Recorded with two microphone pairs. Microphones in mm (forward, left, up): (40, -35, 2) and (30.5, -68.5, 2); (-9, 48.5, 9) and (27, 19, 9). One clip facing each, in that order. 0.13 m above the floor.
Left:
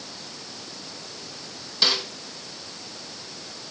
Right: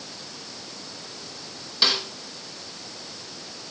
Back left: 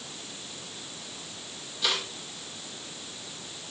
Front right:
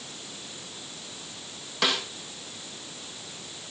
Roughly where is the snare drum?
Ahead right.